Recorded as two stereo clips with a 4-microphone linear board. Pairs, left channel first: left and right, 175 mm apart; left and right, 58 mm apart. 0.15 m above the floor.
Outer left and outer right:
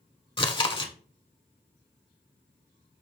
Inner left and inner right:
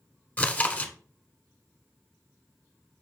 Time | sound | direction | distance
0.4 | chewing | 30° left (ahead or behind) | 0.8 m